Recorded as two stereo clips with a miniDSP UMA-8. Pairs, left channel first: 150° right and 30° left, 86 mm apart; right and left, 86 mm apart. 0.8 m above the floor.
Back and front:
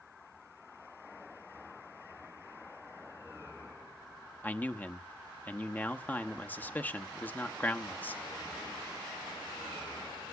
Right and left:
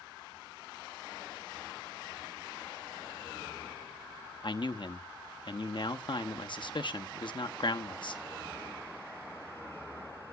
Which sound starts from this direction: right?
A man speaking, at 4.4 s.